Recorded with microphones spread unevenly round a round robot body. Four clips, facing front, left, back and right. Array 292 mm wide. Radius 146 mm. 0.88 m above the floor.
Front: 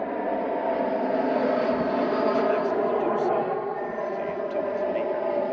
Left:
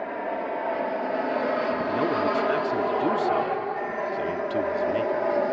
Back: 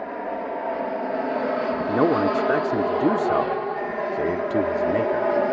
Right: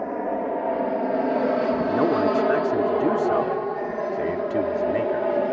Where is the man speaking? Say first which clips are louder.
Right 4 dB, back 3 dB; 175° right.